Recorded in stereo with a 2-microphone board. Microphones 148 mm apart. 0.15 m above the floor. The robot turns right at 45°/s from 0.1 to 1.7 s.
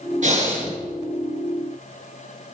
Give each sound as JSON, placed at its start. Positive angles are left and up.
{"t": 0.2, "sound": "breathing", "side_deg": -55, "distance_m": 1.9}